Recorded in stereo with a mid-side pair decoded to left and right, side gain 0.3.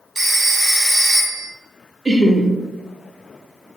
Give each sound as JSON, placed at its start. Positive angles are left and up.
{"t": 0.1, "sound": "a phone ringing", "azimuth_deg": -50, "distance_m": 1.2}
{"t": 2.0, "sound": "laughter", "azimuth_deg": -35, "distance_m": 0.5}